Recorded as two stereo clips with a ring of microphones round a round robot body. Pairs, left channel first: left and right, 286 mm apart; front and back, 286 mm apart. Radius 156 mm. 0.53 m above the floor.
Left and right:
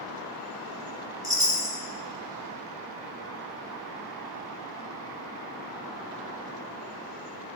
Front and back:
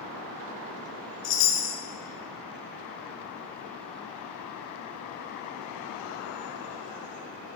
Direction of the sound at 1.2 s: 15° right.